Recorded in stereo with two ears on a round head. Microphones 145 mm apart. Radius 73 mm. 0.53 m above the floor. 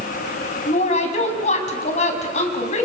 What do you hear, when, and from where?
0.7 s a woman speaking: 45° left (ahead or behind), 4.5 m